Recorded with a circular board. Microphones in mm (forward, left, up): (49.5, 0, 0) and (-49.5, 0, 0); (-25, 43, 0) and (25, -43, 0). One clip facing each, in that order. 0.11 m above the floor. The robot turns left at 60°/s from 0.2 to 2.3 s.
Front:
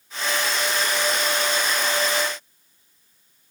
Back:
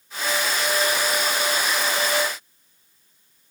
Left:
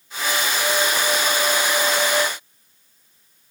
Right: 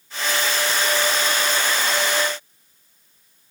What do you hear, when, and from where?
Only background noise.